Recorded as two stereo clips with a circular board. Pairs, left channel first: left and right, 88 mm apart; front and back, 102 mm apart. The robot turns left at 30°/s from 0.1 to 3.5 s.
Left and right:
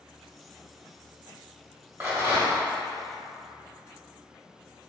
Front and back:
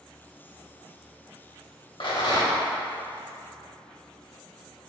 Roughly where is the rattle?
Ahead right.